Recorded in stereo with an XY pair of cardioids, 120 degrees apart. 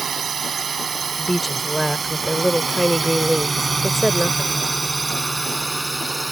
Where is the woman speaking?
5° right.